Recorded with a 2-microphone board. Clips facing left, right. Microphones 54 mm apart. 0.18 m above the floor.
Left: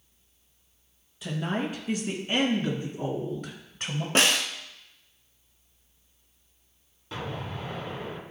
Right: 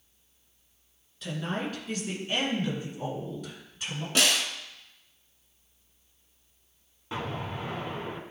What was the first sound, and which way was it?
A woman speaking, 10° left (ahead or behind).